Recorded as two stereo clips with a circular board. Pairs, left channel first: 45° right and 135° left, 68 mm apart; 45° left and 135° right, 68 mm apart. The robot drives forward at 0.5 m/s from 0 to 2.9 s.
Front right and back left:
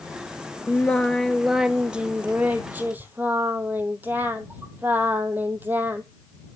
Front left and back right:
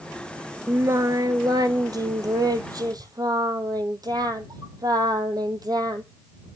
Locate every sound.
0.7 s singing: 95° right, 0.6 m; by 6.0 s 160° right, 1.3 m